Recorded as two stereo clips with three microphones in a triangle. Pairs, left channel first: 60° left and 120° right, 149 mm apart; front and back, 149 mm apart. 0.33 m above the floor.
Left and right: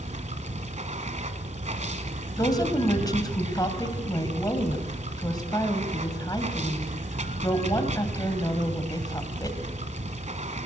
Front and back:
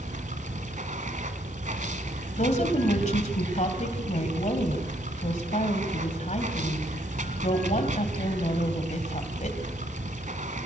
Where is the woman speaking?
Straight ahead, 2.5 m.